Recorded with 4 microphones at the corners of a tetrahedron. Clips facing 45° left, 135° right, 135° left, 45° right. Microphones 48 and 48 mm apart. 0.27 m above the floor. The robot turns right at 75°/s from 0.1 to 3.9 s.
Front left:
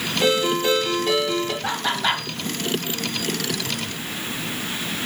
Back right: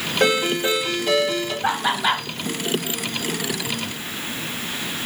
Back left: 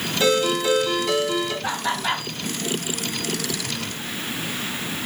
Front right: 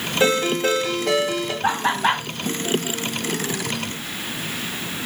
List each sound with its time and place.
0.2 s a ringtone: 100° right, 3 m; by 1.5 s straight ahead, 3 m
1.6 s laughter: 80° right, 1.7 m; by 2.2 s 35° right, 1.7 m